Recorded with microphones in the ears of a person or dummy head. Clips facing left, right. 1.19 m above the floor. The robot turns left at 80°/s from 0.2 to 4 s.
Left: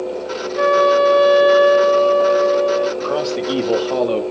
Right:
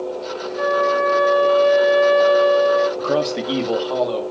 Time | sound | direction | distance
0.6 | a flute | 100° left | 1.1 m
3.0 | a man speaking | 140° right | 1.7 m